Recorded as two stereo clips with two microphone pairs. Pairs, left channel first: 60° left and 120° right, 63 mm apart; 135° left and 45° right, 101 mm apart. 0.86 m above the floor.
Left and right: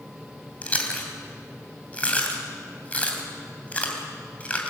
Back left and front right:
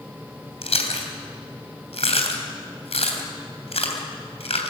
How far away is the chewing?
About 3 m.